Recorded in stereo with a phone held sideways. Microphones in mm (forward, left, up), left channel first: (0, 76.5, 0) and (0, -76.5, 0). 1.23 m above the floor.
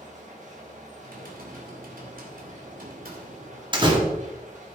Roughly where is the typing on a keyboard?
Right.